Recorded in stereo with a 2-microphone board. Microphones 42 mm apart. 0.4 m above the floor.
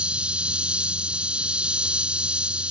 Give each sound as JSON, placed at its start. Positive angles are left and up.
{"t": 0.0, "sound": "an insect", "side_deg": -25}